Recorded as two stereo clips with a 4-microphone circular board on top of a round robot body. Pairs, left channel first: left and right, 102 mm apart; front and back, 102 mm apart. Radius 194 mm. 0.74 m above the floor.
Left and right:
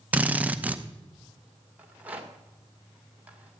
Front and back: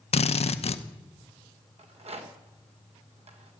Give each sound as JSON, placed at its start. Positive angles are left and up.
{"t": 0.1, "sound": "a drill", "azimuth_deg": -15, "distance_m": 0.8}
{"t": 1.8, "sound": "a rattle", "azimuth_deg": -165, "distance_m": 2.0}